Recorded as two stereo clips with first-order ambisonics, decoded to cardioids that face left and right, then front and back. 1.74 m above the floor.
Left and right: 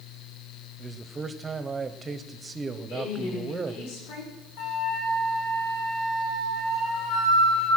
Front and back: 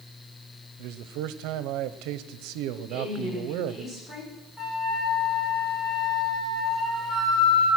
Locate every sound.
0.8 s a man speaking: 165° right, 0.9 m
2.9 s a woman speaking: 80° left, 7 m
4.6 s a flute: 75° left, 7 m